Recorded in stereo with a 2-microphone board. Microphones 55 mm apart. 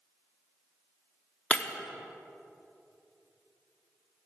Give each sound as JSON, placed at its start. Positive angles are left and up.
{"t": 1.5, "sound": "breaking glass", "side_deg": 25, "distance_m": 0.7}